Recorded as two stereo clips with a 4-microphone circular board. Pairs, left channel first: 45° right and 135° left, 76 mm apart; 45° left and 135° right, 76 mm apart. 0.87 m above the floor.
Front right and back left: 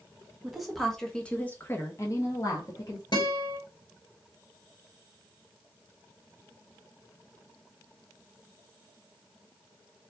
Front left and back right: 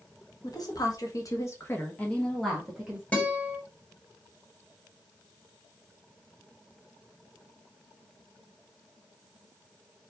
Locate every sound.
0.4 s a woman speaking: 50° left, 1.6 m; by 3.0 s 55° right, 1.4 m
3.1 s a guitar: 25° right, 2.5 m